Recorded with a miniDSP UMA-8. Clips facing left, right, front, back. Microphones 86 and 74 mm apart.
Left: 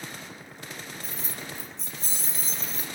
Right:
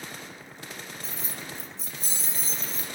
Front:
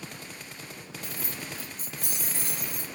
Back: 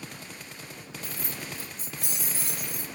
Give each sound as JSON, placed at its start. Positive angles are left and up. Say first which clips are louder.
{"t": 1.0, "sound": "keys jangling", "louder": "even, even", "azimuth_deg": 70, "distance_m": 1.0}